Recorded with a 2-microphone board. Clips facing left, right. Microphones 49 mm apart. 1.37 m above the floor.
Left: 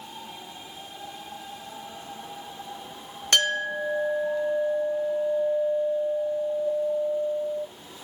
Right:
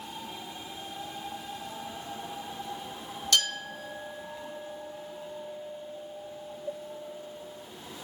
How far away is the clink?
About 1.3 m.